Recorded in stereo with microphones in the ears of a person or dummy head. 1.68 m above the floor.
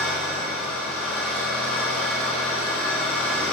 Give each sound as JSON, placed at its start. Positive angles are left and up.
{"t": 0.0, "sound": "an engine running", "side_deg": 5, "distance_m": 3.0}